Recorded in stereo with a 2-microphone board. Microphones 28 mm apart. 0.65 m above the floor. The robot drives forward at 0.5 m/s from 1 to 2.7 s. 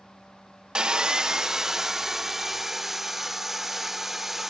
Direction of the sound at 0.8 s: 30° right (ahead or behind).